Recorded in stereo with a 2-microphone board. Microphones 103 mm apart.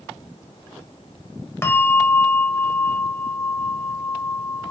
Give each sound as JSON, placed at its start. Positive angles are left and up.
{"t": 1.6, "sound": "a bell", "side_deg": 25, "distance_m": 0.9}